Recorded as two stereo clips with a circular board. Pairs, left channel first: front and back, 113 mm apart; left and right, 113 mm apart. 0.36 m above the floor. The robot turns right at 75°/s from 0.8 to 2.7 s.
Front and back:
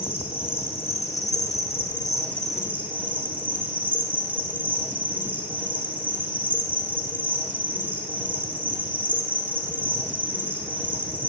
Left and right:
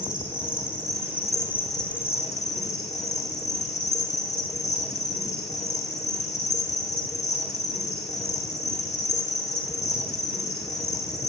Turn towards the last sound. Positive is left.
turn(degrees=105)